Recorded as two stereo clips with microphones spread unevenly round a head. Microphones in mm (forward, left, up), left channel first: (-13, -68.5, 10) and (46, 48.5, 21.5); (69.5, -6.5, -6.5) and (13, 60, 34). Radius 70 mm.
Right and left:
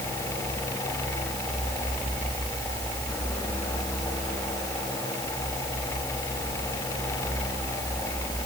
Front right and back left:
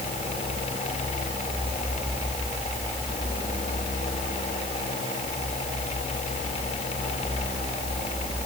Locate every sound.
Only background noise.